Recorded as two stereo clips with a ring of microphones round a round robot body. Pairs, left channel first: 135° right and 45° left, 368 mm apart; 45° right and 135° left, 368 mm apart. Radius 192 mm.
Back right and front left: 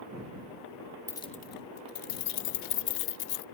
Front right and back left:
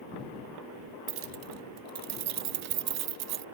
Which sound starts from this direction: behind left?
Keys jangling, at 1.1 s.